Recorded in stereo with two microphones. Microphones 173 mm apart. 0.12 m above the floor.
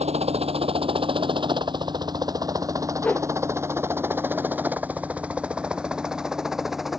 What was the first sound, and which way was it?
A helicopter, 35° right (ahead or behind).